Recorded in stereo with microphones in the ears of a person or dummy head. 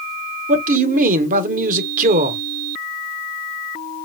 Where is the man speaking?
50° right (ahead or behind), 0.9 m.